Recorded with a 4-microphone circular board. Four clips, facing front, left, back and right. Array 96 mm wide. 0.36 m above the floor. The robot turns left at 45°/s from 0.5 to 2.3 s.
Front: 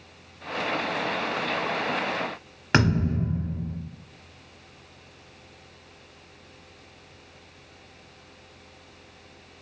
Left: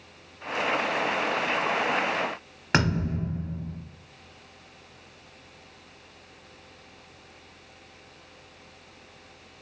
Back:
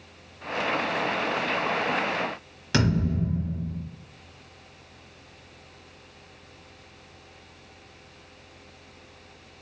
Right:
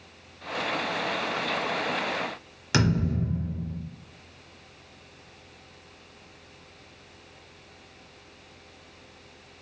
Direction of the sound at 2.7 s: 40° left.